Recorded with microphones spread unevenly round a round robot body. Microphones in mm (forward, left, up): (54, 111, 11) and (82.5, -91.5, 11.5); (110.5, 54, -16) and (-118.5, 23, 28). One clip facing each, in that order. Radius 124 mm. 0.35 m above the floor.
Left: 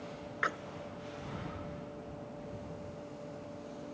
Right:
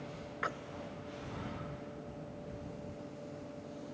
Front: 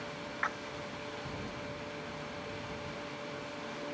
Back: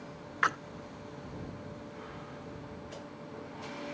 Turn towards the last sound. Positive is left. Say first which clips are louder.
# left 1 dB, back 3 dB
turn(degrees=175)